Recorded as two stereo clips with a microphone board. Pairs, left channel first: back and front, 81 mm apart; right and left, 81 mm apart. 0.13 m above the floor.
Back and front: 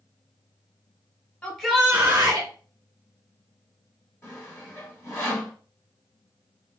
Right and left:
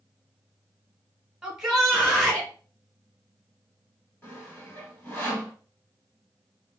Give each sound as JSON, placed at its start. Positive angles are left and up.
{"t": 1.4, "sound": "a shout", "azimuth_deg": 155, "distance_m": 1.3}
{"t": 4.2, "sound": "sawing", "azimuth_deg": -145, "distance_m": 1.9}